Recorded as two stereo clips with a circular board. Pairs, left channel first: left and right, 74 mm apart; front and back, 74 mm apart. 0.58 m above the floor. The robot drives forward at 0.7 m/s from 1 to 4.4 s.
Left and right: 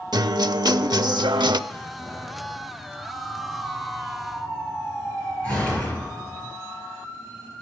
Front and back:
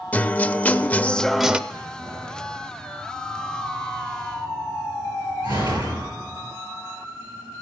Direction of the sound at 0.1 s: 70° right.